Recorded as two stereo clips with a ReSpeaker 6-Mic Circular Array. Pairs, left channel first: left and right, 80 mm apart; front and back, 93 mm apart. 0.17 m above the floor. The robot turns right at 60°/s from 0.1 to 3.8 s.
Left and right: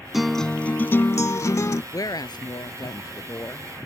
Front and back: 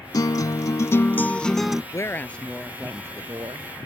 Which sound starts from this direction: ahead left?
A woman speaking, at 1.9 s.